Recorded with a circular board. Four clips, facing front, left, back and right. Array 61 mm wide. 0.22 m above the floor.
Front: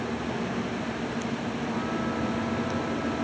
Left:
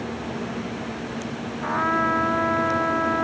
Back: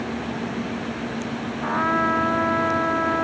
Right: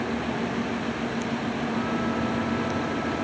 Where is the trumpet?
140° left.